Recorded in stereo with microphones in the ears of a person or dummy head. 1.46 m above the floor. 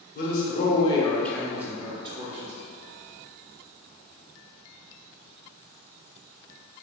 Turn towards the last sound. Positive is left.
turn(degrees=-40)  # may be behind; listen again after turning